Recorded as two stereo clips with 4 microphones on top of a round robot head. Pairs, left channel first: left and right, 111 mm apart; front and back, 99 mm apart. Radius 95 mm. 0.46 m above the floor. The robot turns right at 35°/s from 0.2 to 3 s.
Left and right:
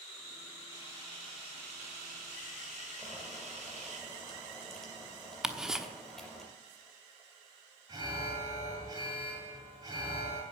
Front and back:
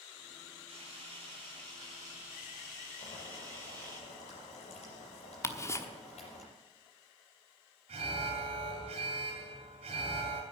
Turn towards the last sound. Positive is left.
turn(degrees=-150)